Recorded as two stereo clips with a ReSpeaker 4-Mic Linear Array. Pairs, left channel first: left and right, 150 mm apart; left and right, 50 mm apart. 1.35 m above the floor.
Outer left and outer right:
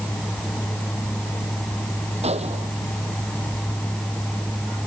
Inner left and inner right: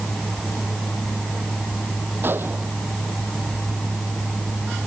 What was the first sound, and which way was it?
A gunshot, 45° right (ahead or behind).